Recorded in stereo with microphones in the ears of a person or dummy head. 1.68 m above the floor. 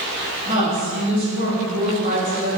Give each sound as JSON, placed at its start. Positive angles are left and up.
{"t": 0.5, "sound": "a woman speaking", "side_deg": -40, "distance_m": 1.3}